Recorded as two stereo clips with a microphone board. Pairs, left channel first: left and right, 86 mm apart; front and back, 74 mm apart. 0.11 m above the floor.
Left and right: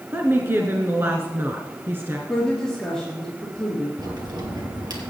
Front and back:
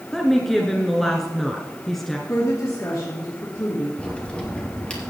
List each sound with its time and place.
0.1 s a woman speaking: 80° right, 1.2 m
2.3 s a woman speaking: 10° left, 2.5 m
4.0 s a crack: 70° right, 2.5 m